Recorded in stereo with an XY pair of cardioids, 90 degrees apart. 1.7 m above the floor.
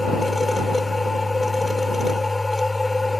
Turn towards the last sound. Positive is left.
turn(degrees=15)